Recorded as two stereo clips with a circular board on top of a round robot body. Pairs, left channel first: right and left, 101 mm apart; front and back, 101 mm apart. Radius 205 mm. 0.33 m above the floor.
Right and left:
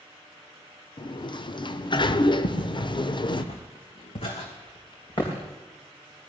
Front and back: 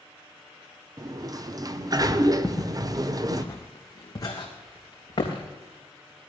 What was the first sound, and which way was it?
A sliding door, 130° right.